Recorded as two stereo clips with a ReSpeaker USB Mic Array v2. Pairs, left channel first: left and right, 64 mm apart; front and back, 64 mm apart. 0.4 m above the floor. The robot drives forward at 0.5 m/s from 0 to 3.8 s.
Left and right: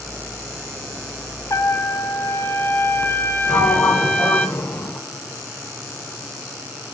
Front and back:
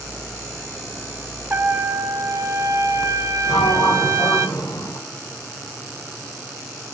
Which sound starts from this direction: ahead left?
A sliding door, at 3.5 s.